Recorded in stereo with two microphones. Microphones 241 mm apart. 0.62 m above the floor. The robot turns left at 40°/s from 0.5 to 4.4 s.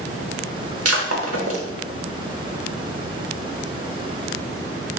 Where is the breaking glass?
85° right, 0.9 m; by 1.6 s 65° right (ahead or behind), 0.9 m.